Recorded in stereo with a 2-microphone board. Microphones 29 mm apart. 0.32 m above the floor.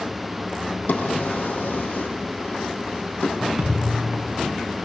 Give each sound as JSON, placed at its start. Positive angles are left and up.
{"t": 0.9, "sound": "a drawer", "side_deg": 70, "distance_m": 4.5}
{"t": 3.6, "sound": "a thud", "side_deg": -20, "distance_m": 9.0}